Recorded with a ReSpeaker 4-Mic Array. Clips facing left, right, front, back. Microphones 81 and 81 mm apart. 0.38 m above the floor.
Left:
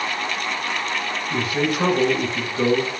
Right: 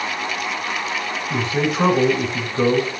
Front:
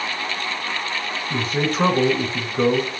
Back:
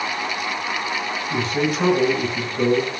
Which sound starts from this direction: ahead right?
A man speaking, at 1.3 s.